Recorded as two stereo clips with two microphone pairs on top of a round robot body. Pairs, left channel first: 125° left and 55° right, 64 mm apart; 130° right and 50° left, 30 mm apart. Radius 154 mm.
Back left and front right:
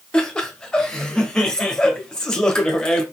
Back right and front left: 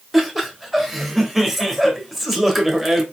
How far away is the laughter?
About 1.5 m.